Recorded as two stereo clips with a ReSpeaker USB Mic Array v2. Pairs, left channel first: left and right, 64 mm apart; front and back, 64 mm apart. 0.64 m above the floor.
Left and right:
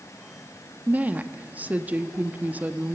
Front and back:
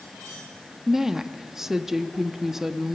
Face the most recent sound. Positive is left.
turn(degrees=-105)